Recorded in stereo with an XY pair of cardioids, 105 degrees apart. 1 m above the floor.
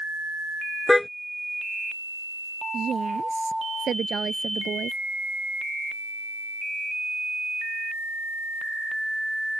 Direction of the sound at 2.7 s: 45° right.